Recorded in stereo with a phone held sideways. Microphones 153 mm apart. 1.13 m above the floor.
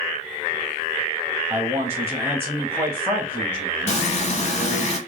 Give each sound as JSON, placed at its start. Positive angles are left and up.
{"t": 1.5, "sound": "a man speaking", "side_deg": -15, "distance_m": 0.7}
{"t": 3.9, "sound": "frying", "side_deg": 45, "distance_m": 0.6}